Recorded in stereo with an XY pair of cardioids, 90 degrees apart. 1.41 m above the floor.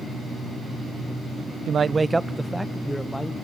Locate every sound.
1.7 s a man speaking: 65° right, 0.5 m; by 3.3 s 10° left, 1.8 m